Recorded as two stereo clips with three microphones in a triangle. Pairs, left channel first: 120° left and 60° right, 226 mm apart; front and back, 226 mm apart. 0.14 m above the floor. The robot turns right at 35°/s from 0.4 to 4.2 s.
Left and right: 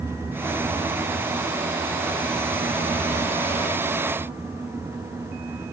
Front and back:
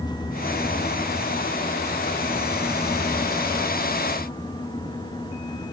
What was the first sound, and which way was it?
Only background noise.